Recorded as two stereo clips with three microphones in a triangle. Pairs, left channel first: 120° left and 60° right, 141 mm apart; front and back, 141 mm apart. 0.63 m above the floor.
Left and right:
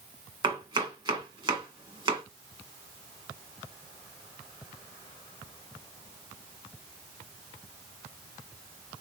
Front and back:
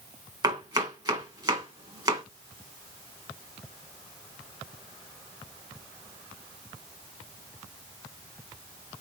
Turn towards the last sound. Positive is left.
turn(degrees=-115)